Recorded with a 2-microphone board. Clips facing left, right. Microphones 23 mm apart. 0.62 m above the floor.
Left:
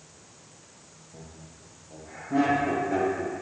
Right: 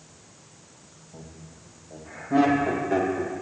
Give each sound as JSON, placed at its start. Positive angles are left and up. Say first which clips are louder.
{"t": 1.1, "sound": "laughter", "louder": "right 2 dB", "side_deg": -25, "distance_m": 4.0}